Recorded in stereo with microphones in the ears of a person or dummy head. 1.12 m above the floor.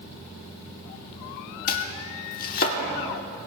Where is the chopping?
45° left (ahead or behind), 1.0 m.